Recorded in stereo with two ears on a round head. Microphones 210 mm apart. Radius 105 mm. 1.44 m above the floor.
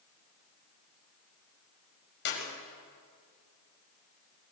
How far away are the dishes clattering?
I don't hear dishes clattering.